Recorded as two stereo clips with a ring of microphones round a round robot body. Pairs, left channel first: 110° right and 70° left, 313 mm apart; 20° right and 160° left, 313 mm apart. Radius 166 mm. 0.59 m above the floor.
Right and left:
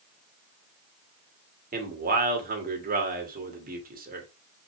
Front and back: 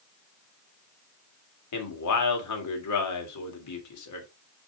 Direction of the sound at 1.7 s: 5° left.